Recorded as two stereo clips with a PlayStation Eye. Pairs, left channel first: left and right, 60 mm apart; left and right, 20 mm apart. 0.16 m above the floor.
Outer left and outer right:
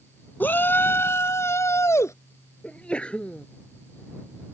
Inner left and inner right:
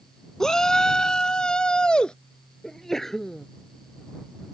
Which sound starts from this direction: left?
A shout, at 0.4 s.